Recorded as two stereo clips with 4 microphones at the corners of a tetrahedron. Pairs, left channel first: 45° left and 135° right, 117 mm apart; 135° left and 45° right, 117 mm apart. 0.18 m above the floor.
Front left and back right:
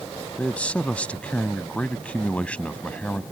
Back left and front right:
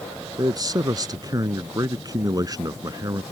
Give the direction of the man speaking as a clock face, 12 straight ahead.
1 o'clock.